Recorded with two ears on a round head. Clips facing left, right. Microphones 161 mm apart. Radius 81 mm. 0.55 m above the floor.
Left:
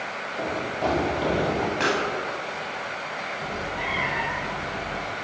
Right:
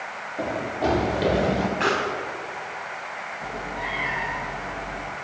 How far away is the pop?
About 5 m.